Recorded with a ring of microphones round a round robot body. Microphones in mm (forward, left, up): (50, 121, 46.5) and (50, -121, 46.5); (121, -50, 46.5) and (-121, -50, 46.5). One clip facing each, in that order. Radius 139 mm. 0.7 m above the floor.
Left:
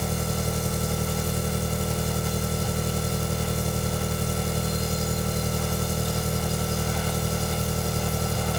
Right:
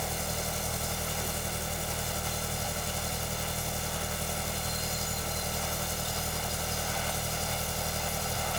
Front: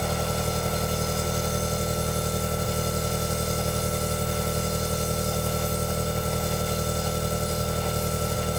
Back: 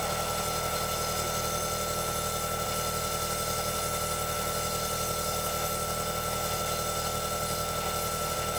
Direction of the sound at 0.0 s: 70° left.